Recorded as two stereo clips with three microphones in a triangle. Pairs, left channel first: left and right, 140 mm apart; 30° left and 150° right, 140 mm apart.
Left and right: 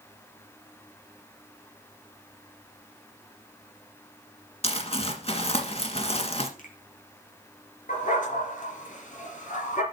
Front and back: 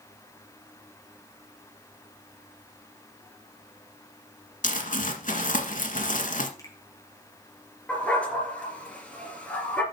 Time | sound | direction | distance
4.6 | crumpling | 50° left | 1.6 m
6.6 | a finger snap | 95° left | 3 m
7.9 | a dog barking | 110° left | 3.5 m